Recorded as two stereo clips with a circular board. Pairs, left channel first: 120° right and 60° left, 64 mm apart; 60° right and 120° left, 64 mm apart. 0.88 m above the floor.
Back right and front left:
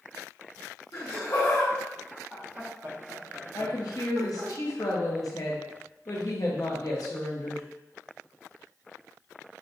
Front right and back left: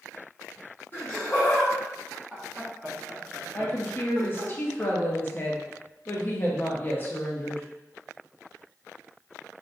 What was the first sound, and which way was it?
Laughter, 110° right.